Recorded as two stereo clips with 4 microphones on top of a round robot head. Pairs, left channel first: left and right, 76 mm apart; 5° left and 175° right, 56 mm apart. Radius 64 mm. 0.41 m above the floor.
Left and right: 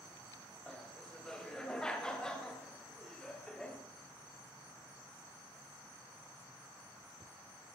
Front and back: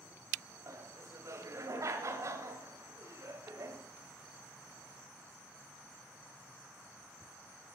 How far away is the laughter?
About 2.5 m.